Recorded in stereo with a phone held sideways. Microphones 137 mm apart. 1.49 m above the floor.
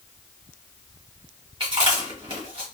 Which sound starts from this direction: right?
Chewing, at 1.6 s.